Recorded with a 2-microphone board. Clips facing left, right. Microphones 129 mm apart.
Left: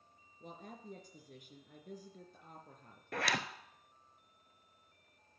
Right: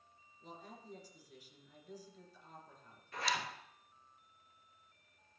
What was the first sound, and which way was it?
A woman speaking, 55° left (ahead or behind).